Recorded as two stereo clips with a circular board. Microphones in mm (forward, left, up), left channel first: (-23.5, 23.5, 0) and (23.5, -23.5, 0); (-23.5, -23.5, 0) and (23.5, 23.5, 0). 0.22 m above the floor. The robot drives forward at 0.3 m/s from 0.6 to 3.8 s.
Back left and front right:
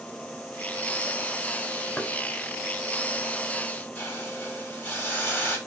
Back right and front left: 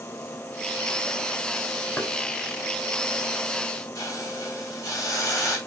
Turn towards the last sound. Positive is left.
turn(degrees=-165)